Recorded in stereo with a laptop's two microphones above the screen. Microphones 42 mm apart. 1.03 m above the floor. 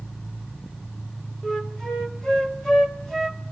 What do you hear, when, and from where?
1.4 s a flute: 10° left (ahead or behind), 0.9 m